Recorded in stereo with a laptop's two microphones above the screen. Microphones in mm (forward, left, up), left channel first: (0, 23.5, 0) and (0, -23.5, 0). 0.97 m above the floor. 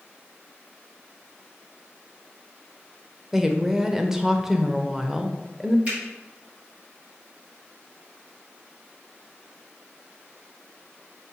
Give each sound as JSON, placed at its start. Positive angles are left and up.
{"t": 3.3, "sound": "a woman speaking", "side_deg": -10, "distance_m": 0.6}
{"t": 5.8, "sound": "a finger snap", "side_deg": -30, "distance_m": 1.8}